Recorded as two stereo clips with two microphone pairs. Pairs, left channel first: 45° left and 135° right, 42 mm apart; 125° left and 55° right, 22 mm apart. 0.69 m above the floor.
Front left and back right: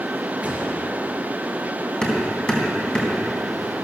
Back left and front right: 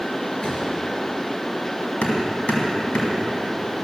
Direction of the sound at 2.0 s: 110° left.